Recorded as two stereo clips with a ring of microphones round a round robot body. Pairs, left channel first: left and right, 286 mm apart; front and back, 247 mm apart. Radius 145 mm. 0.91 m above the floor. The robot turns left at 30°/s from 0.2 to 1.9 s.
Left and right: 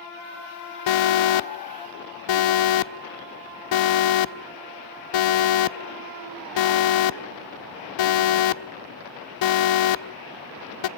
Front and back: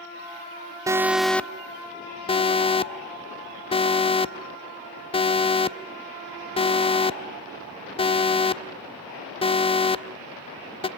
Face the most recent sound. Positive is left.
turn(degrees=70)